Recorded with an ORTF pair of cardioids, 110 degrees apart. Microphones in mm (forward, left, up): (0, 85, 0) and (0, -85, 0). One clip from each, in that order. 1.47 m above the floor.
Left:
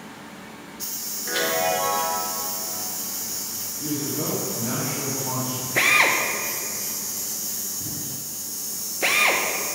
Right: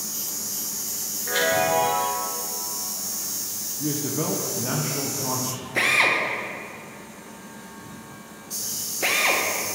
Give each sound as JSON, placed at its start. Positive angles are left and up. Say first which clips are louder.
{"t": 1.3, "sound": "a chime", "louder": "right 2 dB", "azimuth_deg": -5, "distance_m": 2.5}
{"t": 3.8, "sound": "a man speaking", "louder": "right 1 dB", "azimuth_deg": -30, "distance_m": 1.3}
{"t": 5.8, "sound": "a drill", "louder": "left 1 dB", "azimuth_deg": 10, "distance_m": 1.0}